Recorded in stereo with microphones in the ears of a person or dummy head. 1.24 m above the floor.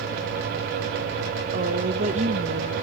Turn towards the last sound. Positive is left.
turn(degrees=-40)  # may be behind; listen again after turning